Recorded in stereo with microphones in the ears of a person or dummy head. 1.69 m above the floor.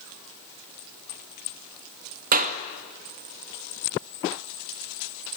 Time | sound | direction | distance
2.3 | a clap | 40° right (ahead or behind) | 2 m